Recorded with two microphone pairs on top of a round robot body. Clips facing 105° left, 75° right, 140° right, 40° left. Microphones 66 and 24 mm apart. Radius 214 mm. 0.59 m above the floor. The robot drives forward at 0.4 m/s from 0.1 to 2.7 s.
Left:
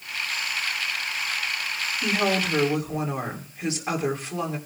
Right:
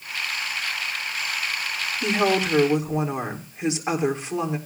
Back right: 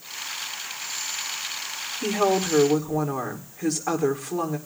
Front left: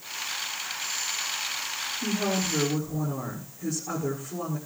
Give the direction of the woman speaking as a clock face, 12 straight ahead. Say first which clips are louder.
Right 3 dB, back right 7 dB; 5 o'clock.